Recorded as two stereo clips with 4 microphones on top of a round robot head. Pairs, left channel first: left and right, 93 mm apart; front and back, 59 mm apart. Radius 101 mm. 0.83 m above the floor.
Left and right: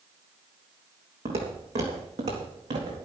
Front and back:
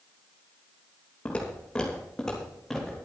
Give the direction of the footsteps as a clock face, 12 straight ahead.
2 o'clock.